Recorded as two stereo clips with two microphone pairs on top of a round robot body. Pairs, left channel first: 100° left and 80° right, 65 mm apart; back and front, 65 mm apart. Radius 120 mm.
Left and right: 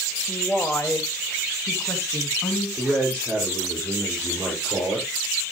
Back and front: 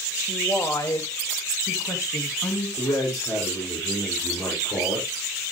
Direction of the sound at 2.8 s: 165° right.